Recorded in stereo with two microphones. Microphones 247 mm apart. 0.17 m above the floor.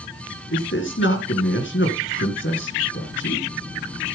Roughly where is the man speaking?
Left.